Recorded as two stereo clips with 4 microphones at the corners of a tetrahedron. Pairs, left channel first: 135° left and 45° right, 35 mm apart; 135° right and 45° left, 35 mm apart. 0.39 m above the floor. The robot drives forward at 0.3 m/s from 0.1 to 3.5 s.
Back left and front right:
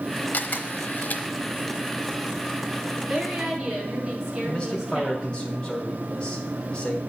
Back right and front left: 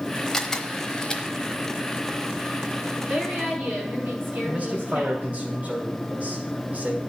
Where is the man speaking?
75° left, 2.5 m.